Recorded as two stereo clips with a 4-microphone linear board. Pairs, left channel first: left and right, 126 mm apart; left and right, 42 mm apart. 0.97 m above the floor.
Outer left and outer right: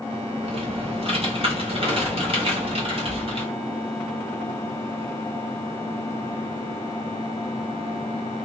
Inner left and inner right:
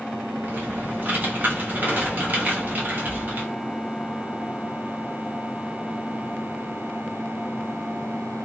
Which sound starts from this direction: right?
Typing on a keyboard, at 0.4 s.